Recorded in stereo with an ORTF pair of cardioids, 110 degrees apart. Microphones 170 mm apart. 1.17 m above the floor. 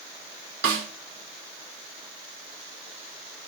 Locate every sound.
0.6 s a snare drum: 70° right, 1.6 m